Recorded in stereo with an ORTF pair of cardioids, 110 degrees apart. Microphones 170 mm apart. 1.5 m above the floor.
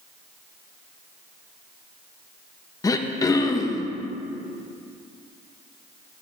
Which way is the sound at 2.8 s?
20° left.